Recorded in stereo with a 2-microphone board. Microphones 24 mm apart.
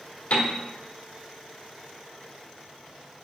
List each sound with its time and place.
0.3 s a piano: 70° left (ahead or behind), 1.5 m